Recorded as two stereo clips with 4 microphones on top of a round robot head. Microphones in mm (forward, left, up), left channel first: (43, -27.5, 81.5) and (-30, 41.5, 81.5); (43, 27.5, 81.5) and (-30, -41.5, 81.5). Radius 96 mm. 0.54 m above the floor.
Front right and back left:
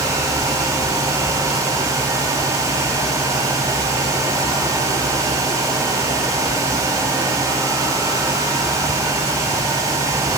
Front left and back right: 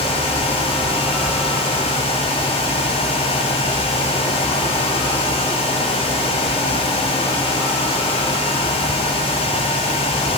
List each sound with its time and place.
Only background noise.